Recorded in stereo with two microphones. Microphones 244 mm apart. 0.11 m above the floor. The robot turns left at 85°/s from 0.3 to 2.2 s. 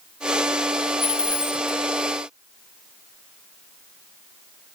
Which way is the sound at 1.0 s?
25° left (ahead or behind).